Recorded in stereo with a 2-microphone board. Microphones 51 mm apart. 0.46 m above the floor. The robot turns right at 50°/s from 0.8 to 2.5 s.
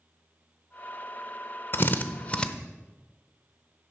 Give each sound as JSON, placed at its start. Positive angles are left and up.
{"t": 1.7, "sound": "a drill", "side_deg": 50, "distance_m": 0.6}